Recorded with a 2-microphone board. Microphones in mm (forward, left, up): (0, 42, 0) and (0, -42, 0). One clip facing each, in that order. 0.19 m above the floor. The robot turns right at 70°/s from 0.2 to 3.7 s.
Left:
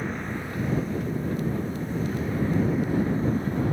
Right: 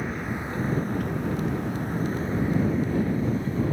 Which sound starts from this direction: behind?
A vehicle, at 0.0 s.